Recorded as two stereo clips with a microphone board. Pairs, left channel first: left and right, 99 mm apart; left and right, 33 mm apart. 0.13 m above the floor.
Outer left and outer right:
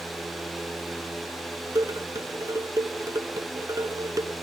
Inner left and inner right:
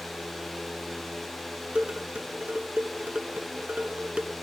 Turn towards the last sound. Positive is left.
turn(degrees=-35)  # may be behind; listen again after turning